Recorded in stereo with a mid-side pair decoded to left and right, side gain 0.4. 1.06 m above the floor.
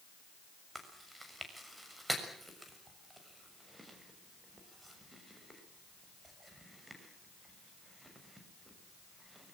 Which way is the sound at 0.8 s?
15° right.